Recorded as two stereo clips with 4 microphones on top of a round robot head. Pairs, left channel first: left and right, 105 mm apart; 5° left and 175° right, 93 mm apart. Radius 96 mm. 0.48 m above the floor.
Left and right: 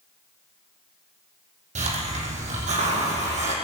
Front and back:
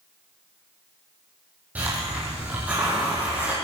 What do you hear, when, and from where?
1.8 s a hiss: 100° right, 5 m